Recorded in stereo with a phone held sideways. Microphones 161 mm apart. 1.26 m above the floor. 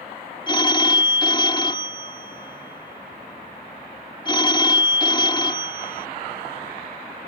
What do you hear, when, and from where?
0.5 s a phone ringing: 30° left (ahead or behind)